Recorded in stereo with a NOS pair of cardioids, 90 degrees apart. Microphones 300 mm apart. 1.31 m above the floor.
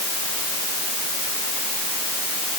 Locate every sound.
Only background noise.